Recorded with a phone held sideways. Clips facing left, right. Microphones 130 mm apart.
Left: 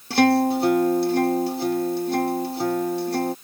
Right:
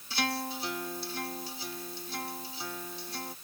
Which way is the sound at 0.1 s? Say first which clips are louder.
Left 17 dB; 65° left (ahead or behind).